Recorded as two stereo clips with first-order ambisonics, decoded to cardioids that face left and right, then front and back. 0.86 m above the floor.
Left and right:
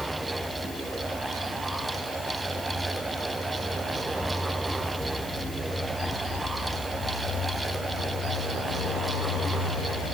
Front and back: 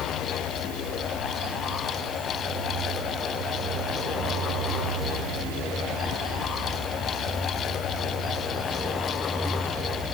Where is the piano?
No piano in this recording.